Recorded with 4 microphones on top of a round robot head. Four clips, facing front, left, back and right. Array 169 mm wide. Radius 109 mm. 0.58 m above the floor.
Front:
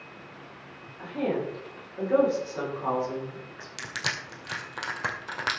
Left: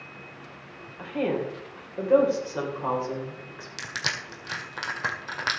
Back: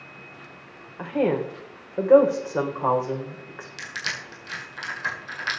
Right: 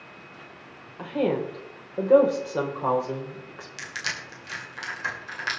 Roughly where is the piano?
No piano in this recording.